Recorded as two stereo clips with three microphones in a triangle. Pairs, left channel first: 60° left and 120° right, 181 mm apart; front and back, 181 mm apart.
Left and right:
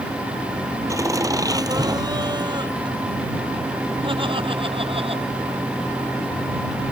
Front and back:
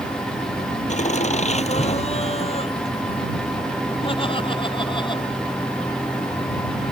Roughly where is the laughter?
Ahead right.